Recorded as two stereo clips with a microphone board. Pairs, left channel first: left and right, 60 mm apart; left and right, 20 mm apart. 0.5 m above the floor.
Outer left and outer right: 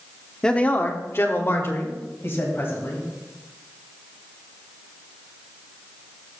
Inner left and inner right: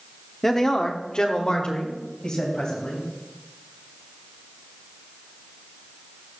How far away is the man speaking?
About 0.7 m.